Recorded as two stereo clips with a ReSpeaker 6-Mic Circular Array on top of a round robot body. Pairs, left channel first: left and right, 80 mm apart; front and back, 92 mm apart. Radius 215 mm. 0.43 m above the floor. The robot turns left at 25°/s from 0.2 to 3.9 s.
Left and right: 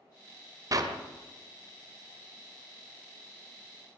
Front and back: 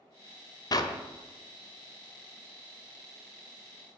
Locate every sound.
0.7 s a clap: 45° right, 1.7 m; by 1.0 s 50° right, 1.7 m